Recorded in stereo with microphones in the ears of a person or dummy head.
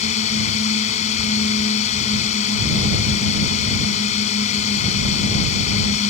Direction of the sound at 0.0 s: 45° left (ahead or behind).